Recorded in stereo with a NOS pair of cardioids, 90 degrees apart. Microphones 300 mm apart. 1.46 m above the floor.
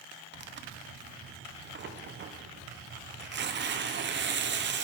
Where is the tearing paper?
40° right, 0.5 m.